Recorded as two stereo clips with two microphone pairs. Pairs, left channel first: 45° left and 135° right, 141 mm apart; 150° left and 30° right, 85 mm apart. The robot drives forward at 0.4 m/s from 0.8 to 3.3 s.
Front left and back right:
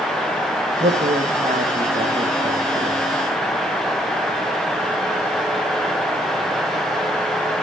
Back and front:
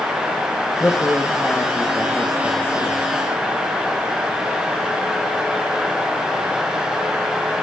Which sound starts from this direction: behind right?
A woman speaking, at 0.8 s.